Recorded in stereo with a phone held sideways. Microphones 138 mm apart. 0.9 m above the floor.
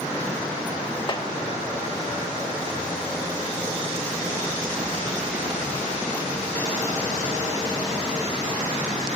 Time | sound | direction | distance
1.1 | a snare drum | 40° left (ahead or behind) | 1.2 m